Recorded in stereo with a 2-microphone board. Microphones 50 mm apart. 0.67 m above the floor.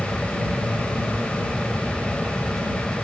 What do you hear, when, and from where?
0.0 s an aircraft: centre (ahead or behind); by 3.0 s 5° left (ahead or behind)